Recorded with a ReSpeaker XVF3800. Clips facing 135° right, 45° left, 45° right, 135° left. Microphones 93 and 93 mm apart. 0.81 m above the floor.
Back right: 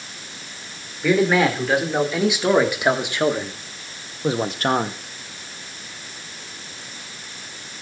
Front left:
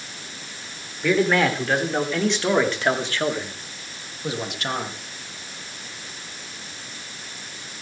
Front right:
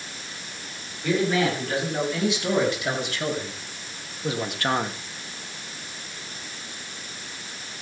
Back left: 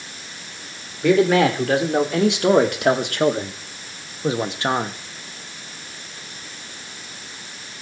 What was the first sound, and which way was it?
A man speaking, 140° left.